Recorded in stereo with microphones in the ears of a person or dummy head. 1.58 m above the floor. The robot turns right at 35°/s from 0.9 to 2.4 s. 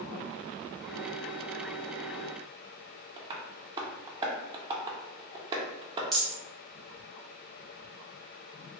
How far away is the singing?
I don't hear singing.